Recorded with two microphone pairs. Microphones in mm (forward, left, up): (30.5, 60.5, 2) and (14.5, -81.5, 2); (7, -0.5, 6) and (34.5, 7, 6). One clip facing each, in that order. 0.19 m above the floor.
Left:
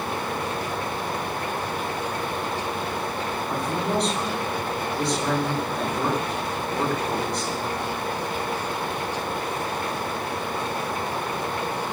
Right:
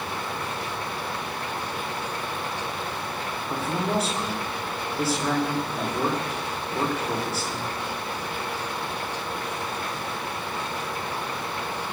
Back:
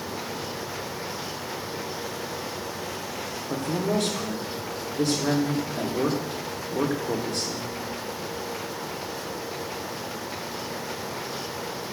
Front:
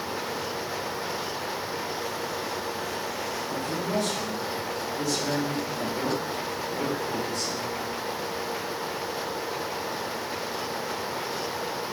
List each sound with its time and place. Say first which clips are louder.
3.5 s a man speaking: even, back 5 dB; straight behind, 8 m